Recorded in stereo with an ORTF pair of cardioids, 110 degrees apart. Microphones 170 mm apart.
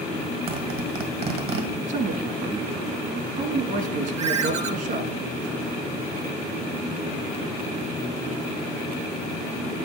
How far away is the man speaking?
About 1.5 m.